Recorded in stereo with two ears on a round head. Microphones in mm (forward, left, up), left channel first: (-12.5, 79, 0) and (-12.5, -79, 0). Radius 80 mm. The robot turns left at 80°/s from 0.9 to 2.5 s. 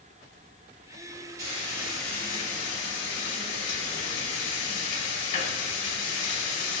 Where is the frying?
135° right, 2.0 m; by 6.8 s 135° left, 2.0 m.